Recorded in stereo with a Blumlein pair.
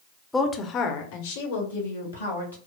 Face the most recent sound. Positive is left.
turn(degrees=75)